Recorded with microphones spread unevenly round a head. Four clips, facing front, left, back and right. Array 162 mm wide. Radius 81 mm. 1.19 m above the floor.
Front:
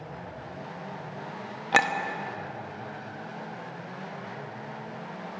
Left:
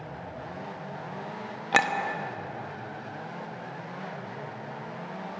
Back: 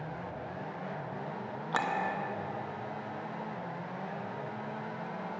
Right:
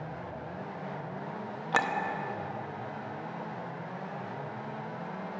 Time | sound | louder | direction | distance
1.7 | a clink | left 4 dB, front 8 dB | 25° left | 0.9 m